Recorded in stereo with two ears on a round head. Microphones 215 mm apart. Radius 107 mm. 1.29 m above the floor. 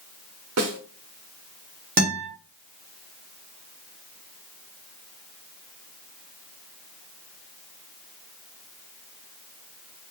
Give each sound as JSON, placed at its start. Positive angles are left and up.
{"t": 0.6, "sound": "a snare drum", "side_deg": -65, "distance_m": 1.1}
{"t": 2.0, "sound": "a guitar", "side_deg": -40, "distance_m": 2.0}